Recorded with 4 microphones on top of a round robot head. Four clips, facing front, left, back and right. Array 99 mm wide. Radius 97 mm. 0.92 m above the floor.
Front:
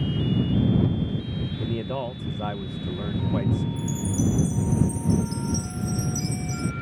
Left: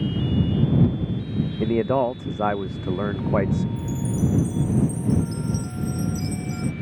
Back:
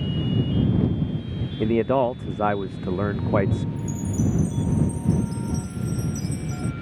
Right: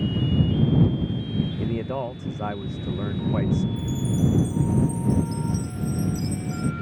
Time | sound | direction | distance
1.6 | a man speaking | 140° left | ?
3.8 | a chime | 5° left | ?